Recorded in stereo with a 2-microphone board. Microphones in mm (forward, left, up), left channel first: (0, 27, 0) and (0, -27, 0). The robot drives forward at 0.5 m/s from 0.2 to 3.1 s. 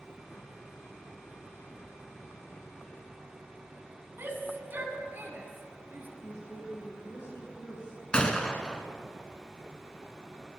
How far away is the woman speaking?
About 4.5 m.